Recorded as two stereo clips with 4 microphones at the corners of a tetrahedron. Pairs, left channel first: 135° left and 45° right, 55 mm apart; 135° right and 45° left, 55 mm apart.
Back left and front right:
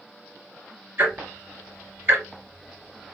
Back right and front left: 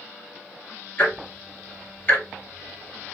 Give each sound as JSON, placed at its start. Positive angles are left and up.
{"t": 1.0, "sound": "ticking", "azimuth_deg": -85, "distance_m": 1.9}